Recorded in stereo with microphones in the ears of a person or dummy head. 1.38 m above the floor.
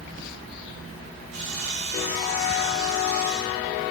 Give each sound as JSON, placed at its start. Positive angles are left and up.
{"t": 1.3, "sound": "sawing", "side_deg": -40, "distance_m": 5.0}